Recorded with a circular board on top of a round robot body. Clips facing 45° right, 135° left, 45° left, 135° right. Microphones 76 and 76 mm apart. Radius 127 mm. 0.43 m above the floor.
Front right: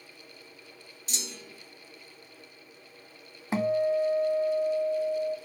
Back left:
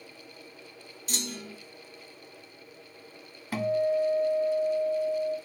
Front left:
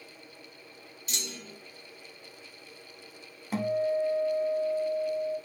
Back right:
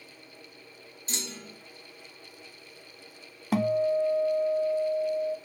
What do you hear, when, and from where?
1.1 s a clunk: 170° left, 1.9 m
3.5 s a guitar: 115° right, 0.6 m